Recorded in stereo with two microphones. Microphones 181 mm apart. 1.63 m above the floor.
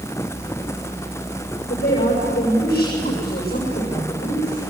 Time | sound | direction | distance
1.7 | a woman speaking | 55° left (ahead or behind) | 7 m